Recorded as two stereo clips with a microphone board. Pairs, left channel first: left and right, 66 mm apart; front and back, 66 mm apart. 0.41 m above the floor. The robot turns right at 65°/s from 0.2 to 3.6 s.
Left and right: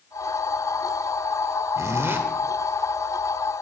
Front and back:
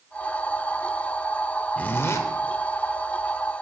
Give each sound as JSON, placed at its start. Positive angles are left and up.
{"t": 1.8, "sound": "a zipper", "azimuth_deg": -65, "distance_m": 0.5}